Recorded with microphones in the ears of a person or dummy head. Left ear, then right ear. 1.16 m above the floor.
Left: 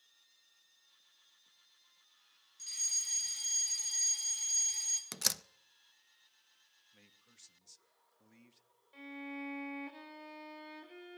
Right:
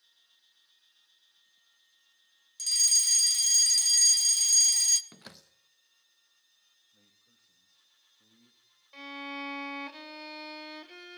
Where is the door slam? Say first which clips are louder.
Left 16 dB; 80° left, 0.7 m.